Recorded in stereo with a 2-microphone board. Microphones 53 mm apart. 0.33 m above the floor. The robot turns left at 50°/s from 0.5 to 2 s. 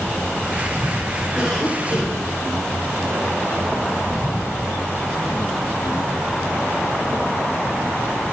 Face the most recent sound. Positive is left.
turn(degrees=170)